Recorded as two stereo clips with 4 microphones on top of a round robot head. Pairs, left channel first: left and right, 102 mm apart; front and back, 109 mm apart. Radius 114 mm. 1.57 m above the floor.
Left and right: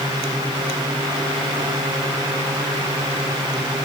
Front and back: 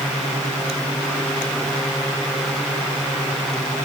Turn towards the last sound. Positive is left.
No sound to turn to.